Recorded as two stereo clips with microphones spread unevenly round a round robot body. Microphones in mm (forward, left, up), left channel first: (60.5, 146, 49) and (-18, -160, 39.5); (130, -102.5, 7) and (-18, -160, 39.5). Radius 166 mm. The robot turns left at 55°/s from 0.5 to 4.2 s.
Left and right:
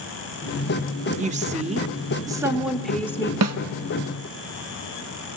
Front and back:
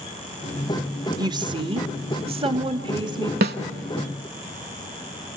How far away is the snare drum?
About 0.9 m.